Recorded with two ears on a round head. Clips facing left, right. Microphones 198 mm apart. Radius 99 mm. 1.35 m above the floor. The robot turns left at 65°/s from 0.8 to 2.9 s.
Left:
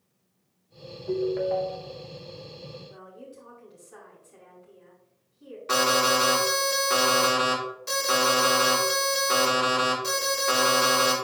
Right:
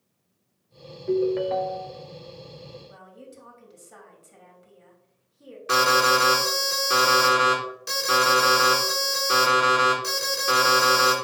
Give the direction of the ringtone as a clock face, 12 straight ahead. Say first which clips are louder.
Right 3 dB; 1 o'clock.